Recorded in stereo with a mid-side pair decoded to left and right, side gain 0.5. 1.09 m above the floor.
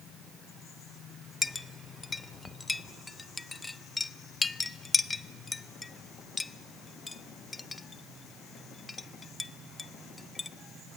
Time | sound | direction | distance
1.4 | a clink | 20° left | 0.5 m